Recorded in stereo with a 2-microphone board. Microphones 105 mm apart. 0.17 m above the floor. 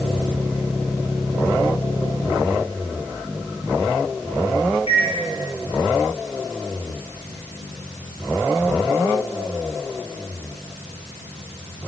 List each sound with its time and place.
4.9 s a microwave: 70° left (ahead or behind), 3 m